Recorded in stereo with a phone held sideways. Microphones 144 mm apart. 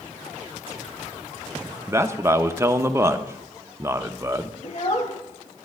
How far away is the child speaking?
About 0.7 m.